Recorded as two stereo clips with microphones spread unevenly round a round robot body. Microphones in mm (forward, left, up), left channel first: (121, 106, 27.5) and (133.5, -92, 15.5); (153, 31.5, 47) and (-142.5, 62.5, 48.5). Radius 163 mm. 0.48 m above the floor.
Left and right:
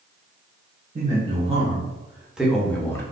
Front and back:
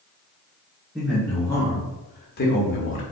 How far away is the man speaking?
About 1.2 m.